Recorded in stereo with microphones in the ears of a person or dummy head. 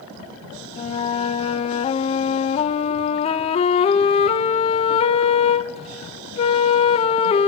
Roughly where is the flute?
Left.